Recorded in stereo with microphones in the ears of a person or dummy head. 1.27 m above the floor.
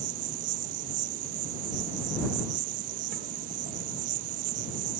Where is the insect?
50° right (ahead or behind).